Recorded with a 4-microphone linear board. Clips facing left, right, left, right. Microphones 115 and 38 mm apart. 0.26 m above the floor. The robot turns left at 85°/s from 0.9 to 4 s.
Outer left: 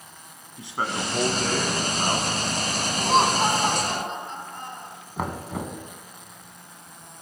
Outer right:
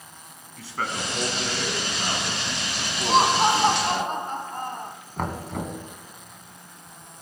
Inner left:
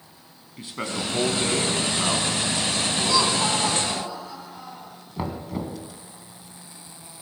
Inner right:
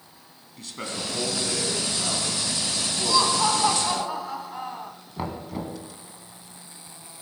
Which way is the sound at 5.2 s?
5° left (ahead or behind).